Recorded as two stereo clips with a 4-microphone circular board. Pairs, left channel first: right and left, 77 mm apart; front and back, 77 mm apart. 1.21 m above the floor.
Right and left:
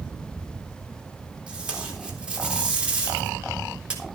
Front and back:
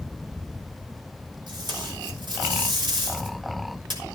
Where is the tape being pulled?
165° left, 3.5 m.